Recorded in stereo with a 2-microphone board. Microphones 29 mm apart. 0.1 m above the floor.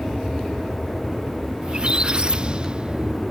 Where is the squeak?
35° right (ahead or behind).